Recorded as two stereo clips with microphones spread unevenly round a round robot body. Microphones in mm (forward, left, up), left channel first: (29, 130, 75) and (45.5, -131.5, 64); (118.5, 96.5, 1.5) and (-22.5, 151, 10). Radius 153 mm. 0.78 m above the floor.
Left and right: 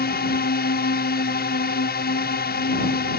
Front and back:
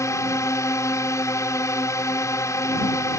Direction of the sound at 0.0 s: 45° left.